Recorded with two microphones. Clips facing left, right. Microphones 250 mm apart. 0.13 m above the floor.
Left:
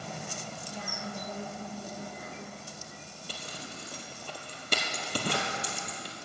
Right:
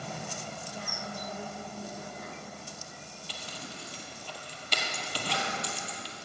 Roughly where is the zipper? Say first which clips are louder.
Left 1 dB; left.